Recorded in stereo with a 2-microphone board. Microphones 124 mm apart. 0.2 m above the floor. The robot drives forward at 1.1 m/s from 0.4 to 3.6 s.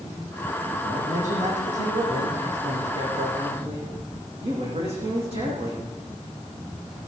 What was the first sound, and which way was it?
A man speaking, 80° right.